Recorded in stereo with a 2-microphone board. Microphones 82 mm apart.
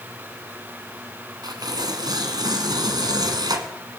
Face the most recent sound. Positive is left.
turn(degrees=-60)  # may be behind; listen again after turning